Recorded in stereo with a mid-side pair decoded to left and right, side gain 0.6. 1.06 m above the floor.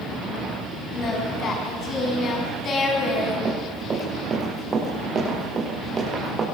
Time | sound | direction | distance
0.9 | singing | 45° left | 5.5 m
3.5 | running footsteps | 30° right | 8.5 m